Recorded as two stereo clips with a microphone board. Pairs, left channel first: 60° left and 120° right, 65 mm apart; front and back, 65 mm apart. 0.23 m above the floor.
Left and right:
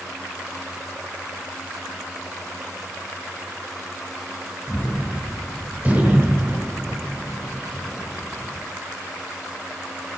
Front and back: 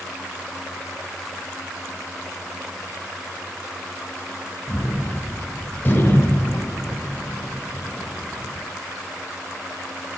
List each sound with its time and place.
4.7 s a gunshot: 55° right, 3.5 m